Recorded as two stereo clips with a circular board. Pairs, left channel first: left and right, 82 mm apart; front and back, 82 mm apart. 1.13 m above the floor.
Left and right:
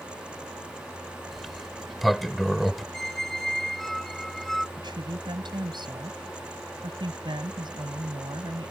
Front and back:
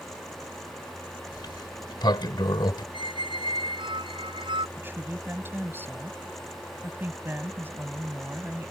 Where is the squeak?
175° left.